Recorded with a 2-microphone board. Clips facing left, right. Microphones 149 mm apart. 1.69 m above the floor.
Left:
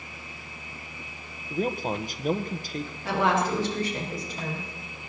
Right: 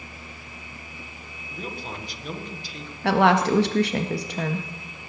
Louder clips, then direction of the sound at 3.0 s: Right 6 dB; 70° right (ahead or behind).